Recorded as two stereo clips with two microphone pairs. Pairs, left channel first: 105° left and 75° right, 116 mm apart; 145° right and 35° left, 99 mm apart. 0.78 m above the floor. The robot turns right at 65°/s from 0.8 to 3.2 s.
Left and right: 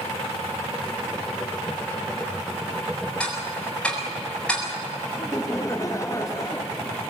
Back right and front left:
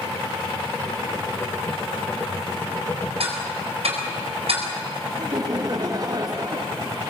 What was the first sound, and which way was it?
Ticking, 20° left.